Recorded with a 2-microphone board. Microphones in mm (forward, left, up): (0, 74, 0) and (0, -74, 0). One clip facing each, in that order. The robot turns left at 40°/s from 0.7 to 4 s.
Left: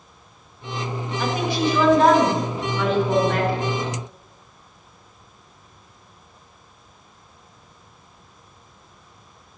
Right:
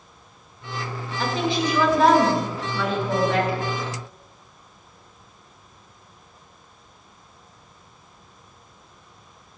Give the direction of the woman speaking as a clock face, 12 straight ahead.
5 o'clock.